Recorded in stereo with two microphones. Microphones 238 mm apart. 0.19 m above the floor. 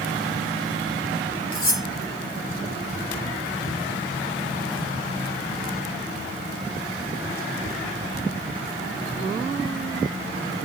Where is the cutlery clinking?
60° left (ahead or behind), 2.5 m.